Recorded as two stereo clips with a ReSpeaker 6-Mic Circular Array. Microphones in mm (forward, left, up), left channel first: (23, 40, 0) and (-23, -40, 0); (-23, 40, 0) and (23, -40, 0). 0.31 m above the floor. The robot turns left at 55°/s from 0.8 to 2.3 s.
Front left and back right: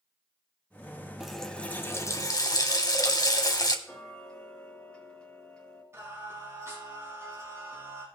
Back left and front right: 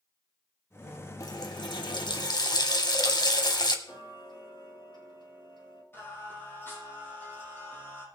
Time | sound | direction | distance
1.2 | a running tap | 155° left | 1.4 m
3.9 | ticking | 140° left | 5 m
5.9 | singing | 175° right | 5.5 m